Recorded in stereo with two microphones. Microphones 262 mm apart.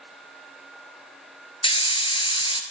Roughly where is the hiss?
Centre.